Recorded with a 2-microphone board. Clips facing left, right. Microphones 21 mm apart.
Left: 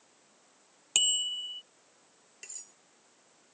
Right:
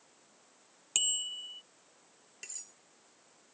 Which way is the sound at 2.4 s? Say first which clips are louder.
Right 1 dB; 10° right (ahead or behind).